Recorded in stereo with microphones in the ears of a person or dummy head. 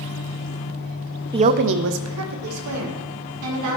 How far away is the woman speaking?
About 0.6 m.